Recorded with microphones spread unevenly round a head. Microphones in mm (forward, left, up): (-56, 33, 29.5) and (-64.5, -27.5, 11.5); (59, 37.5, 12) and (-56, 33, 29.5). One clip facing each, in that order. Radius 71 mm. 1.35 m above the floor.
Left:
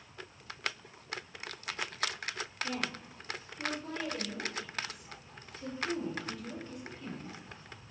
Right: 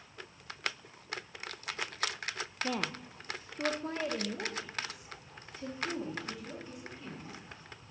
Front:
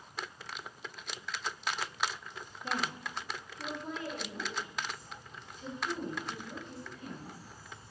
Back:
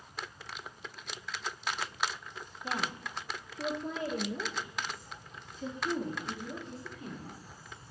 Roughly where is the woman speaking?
Right.